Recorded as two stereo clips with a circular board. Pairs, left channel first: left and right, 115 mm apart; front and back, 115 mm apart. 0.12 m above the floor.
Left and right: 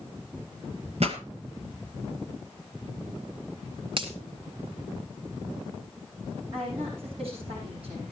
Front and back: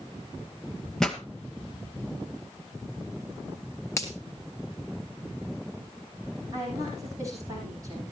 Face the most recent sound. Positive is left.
turn(degrees=-120)